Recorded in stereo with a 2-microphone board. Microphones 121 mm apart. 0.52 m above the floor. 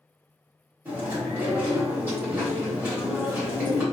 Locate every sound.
0.8 s chewing: 15° right (ahead or behind), 1.3 m